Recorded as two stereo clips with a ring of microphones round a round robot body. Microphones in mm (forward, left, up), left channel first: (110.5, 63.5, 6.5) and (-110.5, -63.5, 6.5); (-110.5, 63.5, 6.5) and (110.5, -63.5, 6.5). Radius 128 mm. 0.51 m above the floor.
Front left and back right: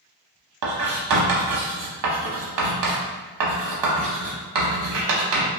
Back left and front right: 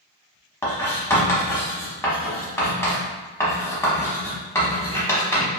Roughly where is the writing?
Behind right.